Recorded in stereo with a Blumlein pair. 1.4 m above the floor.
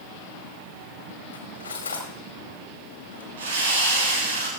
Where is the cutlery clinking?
70° left, 2.5 m.